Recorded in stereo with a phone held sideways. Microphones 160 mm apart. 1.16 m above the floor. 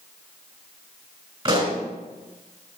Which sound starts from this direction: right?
A pop, at 1.4 s.